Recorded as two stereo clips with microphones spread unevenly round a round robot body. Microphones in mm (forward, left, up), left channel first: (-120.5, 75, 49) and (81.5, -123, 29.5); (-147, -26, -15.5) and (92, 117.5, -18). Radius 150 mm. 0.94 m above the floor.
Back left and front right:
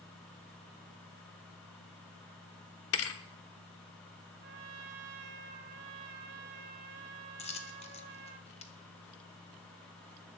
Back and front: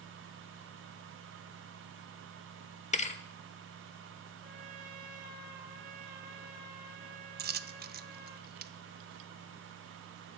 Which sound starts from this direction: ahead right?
A trumpet, at 4.4 s.